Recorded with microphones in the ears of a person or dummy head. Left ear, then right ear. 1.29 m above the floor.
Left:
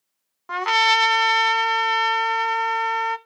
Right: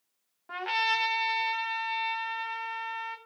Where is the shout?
No shout in this recording.